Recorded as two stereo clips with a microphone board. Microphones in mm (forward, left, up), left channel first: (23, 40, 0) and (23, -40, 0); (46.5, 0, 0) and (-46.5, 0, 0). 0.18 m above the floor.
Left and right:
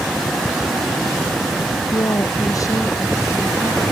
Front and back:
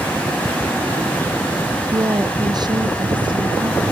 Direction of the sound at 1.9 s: 130° left.